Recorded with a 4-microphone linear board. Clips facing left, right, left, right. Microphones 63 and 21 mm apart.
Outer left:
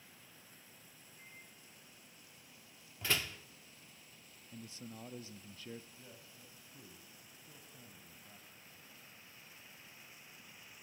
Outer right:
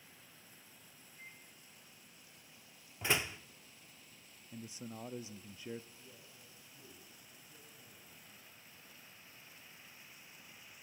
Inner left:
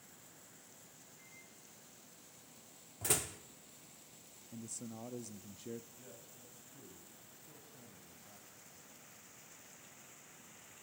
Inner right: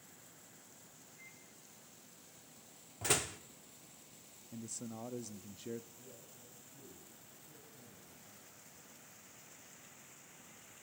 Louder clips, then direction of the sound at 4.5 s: Outer right 3 dB, inner right 2 dB; 20° right (ahead or behind).